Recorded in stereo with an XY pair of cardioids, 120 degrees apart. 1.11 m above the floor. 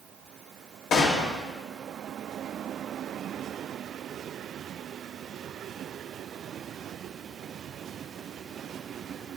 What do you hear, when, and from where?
0.9 s a gunshot: 65° left, 2.5 m